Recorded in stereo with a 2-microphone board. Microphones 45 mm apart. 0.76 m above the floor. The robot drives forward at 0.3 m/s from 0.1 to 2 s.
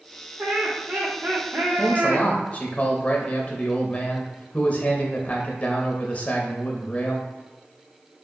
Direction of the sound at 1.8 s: 30° left (ahead or behind).